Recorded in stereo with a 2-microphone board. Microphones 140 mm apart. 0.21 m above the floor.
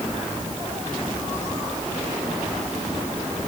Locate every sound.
Only background noise.